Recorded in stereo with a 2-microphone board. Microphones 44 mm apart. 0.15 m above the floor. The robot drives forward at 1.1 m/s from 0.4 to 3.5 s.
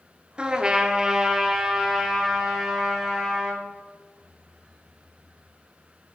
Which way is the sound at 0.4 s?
25° right (ahead or behind).